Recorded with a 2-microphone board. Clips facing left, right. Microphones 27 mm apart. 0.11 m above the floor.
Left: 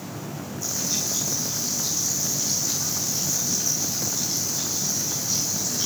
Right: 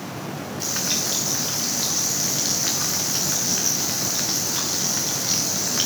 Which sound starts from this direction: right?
Frying, at 0.6 s.